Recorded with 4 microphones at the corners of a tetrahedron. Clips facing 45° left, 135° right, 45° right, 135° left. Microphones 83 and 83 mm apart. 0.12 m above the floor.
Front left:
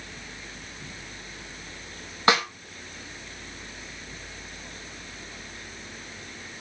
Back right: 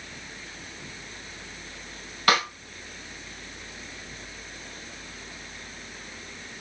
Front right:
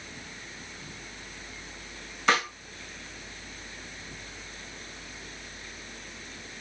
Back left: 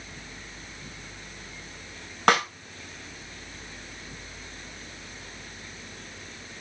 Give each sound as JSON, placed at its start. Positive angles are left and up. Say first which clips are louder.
{"t": 2.3, "sound": "a snare drum", "louder": "front left 1 dB, back left 4 dB", "azimuth_deg": 110, "distance_m": 4.0}